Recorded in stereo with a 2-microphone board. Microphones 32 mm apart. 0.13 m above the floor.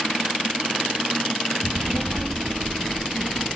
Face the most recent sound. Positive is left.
turn(degrees=-55)  # may be behind; listen again after turning